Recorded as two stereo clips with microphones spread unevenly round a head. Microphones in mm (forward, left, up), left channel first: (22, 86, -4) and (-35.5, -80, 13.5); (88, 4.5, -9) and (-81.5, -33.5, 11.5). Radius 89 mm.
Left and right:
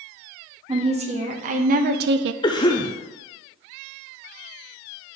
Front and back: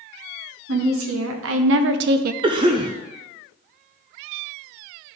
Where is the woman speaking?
165° right, 1.7 m; by 2.3 s 125° right, 0.5 m.